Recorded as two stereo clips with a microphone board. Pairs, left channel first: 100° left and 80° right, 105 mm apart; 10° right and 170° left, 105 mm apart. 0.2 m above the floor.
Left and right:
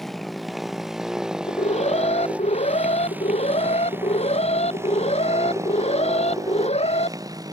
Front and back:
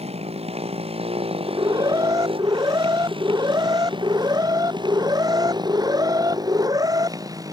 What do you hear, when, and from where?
0.0 s a motorcycle: 170° right; by 7.5 s 135° right
1.4 s an alarm: 115° left